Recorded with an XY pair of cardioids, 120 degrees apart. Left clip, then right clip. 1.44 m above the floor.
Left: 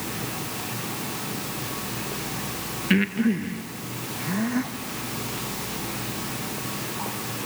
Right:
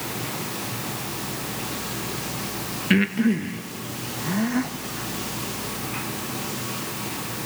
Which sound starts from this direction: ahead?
Breathing, at 2.9 s.